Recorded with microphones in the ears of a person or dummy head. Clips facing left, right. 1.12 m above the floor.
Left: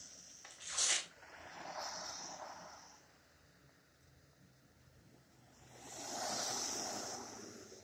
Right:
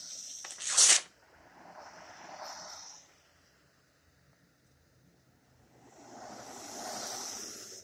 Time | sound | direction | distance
0.4 | tearing paper | 70° right (ahead or behind) | 0.6 m